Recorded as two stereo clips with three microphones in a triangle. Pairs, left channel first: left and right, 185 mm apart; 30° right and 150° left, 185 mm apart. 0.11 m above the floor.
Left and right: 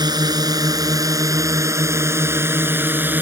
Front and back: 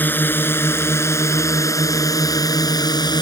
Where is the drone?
90° right; by 3.2 s 25° right.